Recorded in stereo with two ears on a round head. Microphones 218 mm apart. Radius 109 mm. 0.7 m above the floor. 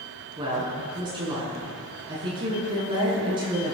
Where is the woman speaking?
20° right (ahead or behind), 6.5 m.